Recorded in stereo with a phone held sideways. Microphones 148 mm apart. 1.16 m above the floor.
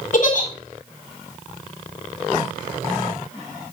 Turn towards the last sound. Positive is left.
turn(degrees=60)  # may be behind; listen again after turning